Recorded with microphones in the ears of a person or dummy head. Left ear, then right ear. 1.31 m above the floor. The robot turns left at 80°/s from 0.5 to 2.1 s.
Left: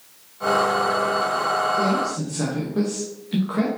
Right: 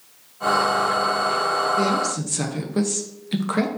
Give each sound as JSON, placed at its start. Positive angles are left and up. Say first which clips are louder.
{"t": 1.8, "sound": "a woman speaking", "louder": "right 1 dB", "side_deg": -70, "distance_m": 0.7}